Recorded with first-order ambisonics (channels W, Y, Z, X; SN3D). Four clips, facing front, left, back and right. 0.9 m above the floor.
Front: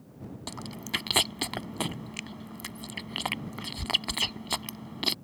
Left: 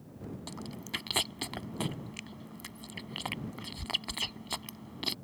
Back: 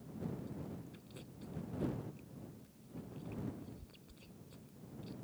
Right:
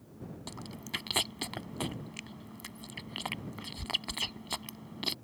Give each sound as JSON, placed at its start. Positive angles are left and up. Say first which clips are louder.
{"t": 0.5, "sound": "chewing", "louder": "even, front 14 dB", "azimuth_deg": 0}